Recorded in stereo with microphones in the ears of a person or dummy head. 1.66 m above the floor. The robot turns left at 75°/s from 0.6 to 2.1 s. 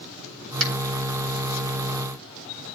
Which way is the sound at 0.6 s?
85° right.